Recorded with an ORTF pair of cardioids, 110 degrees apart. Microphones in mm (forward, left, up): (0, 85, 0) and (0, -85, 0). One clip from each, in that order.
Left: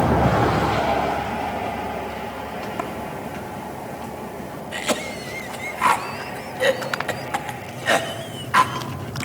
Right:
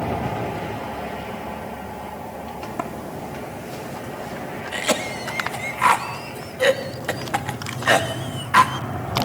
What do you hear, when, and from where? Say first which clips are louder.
2.6 s a sliding door: even; straight ahead, 2.5 m
4.7 s a cough: right 2 dB; 10° right, 2.5 m